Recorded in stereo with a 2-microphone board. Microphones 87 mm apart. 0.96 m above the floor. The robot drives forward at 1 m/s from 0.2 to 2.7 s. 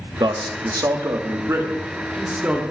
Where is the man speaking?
55° right (ahead or behind), 1.1 m; by 2.6 s 20° right (ahead or behind), 2.5 m.